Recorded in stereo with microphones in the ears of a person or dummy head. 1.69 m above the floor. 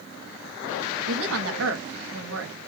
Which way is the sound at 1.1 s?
75° right (ahead or behind).